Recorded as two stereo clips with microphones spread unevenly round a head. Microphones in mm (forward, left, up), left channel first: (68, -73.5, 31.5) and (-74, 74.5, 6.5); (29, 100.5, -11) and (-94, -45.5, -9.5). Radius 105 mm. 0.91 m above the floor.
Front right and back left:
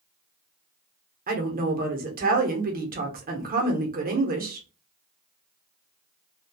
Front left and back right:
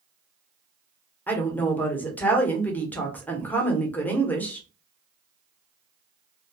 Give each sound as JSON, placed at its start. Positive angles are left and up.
{"t": 1.3, "sound": "a woman speaking", "azimuth_deg": 130, "distance_m": 0.9}